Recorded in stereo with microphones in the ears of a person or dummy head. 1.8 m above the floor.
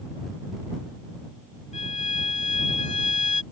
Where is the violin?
40° left (ahead or behind).